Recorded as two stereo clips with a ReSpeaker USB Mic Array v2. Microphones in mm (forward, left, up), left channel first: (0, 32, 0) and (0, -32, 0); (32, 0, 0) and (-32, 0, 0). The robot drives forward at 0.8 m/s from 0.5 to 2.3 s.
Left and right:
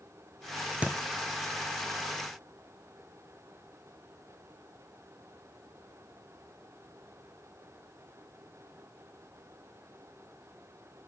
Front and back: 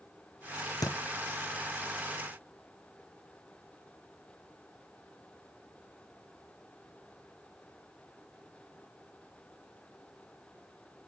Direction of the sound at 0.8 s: 20° right.